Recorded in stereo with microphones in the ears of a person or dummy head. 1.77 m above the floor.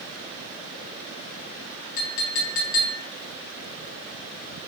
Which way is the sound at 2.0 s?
50° left (ahead or behind).